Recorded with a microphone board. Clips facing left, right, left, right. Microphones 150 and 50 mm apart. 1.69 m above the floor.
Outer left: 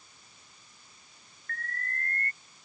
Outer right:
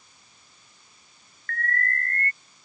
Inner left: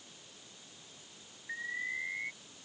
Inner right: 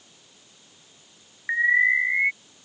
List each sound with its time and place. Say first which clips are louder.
1.5 s an alarm: outer right 10 dB, inner right 19 dB; 85° right